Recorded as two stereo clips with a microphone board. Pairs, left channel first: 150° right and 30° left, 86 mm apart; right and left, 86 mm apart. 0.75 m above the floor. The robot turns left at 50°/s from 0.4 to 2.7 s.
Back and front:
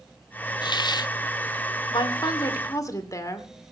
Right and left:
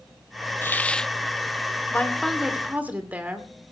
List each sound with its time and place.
0.6 s a hiss: 150° right, 0.5 m; by 1.1 s 175° right, 0.5 m
1.9 s a woman speaking: 160° right, 2.5 m; by 3.5 s 160° left, 2.5 m